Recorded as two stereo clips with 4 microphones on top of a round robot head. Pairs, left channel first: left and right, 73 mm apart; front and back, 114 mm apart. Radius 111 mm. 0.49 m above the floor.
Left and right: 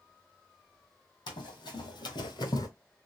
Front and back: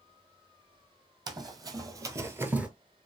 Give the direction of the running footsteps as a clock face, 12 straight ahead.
8 o'clock.